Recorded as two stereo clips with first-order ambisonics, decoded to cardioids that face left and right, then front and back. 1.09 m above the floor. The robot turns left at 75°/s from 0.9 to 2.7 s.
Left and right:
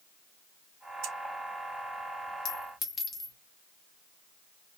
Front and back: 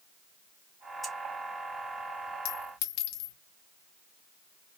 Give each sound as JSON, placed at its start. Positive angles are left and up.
{"t": 1.0, "sound": "scissors", "azimuth_deg": -95, "distance_m": 1.6}
{"t": 2.5, "sound": "a clink", "azimuth_deg": 35, "distance_m": 1.2}